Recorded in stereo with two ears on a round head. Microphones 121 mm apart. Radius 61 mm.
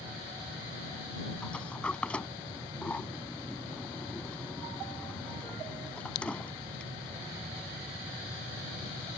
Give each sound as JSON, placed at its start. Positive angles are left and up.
{"t": 1.4, "sound": "a sliding door", "side_deg": 10}